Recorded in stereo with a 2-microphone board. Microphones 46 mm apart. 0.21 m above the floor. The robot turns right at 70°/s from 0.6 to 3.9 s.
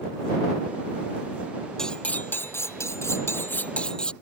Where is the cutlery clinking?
10° left; by 4.1 s 160° left.